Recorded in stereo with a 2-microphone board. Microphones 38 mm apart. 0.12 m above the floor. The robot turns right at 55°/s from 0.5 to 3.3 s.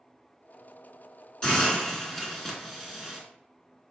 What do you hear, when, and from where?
1.4 s a hiss: 20° left (ahead or behind), 0.9 m; by 3.2 s 10° right (ahead or behind), 0.9 m